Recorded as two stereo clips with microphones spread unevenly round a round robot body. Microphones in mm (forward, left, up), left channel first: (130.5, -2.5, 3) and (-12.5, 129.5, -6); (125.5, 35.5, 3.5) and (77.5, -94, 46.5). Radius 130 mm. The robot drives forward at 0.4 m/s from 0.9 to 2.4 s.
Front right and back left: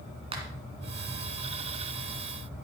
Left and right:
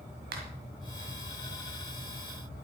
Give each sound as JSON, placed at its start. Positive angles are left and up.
{"t": 0.3, "sound": "a finger snap", "azimuth_deg": -155, "distance_m": 2.5}